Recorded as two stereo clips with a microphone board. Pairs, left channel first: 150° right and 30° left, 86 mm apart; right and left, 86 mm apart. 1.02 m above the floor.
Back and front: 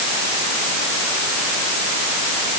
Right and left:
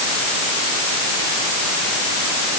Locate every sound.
Only background noise.